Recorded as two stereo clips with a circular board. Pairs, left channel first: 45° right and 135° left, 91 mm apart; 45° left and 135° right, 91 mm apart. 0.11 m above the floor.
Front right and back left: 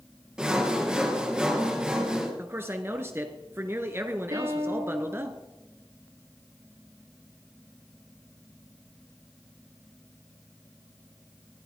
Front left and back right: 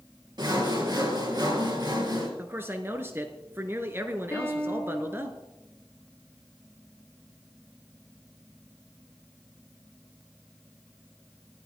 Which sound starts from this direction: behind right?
Sawing, at 0.4 s.